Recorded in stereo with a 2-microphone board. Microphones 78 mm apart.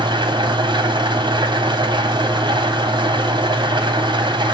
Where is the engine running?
85° right, 2.5 m.